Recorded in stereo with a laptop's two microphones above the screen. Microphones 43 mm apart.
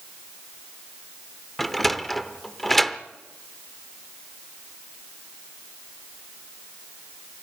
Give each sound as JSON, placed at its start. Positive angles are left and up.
{"t": 1.6, "sound": "a sliding door", "side_deg": 5, "distance_m": 0.6}